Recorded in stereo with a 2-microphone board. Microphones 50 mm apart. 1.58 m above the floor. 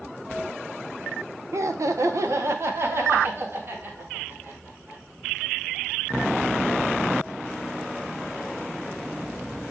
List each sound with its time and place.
1.5 s laughter: 70° right (ahead or behind), 1.1 m; by 5.0 s 40° right (ahead or behind), 4.5 m